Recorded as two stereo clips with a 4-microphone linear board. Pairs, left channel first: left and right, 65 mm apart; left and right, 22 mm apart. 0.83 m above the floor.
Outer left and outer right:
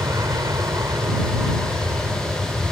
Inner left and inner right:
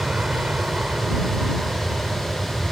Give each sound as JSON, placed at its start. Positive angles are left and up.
{"t": 0.0, "sound": "an aircraft", "side_deg": -60}